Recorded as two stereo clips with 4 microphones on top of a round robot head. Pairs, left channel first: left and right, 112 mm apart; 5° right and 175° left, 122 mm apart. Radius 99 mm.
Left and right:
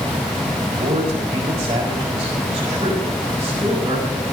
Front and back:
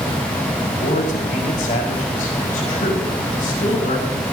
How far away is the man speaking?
About 5 m.